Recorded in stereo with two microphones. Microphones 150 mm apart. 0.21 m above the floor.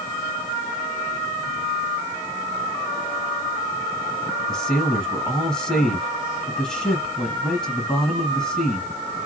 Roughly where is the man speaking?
Centre.